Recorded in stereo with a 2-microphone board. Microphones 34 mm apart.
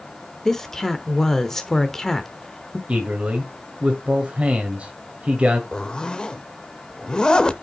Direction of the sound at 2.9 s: 35° right (ahead or behind).